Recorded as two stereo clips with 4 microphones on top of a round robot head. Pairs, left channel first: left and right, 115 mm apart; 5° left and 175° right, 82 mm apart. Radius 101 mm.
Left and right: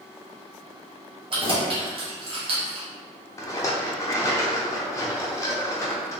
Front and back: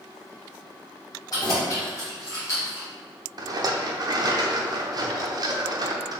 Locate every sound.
1.3 s keys jangling: 50° right, 1.8 m; by 2.9 s 60° right, 1.1 m
3.4 s a rattle: 155° left, 0.8 m